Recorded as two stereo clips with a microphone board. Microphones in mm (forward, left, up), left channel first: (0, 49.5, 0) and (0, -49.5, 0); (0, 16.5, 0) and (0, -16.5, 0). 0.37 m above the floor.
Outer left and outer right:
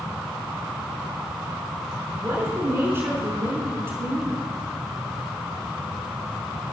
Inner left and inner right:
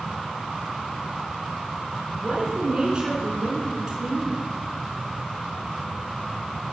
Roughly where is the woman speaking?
Right.